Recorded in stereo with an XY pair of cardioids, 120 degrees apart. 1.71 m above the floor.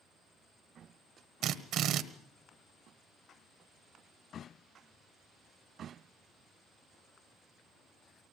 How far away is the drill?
About 1.5 m.